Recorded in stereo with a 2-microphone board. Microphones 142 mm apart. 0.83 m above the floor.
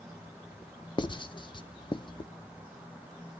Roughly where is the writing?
Left.